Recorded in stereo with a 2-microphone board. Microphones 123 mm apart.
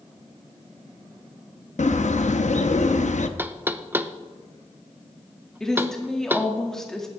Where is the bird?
75° left (ahead or behind), 0.7 m.